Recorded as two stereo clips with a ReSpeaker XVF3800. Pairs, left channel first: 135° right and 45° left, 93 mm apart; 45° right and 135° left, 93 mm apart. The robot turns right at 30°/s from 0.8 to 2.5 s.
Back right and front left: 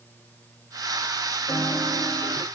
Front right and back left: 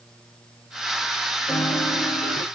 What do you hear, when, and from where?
1.5 s a piano: 85° right, 2 m; by 2.5 s 60° right, 2 m